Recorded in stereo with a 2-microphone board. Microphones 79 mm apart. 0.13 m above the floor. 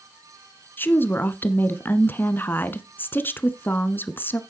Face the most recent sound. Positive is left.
turn(degrees=25)  # may be behind; listen again after turning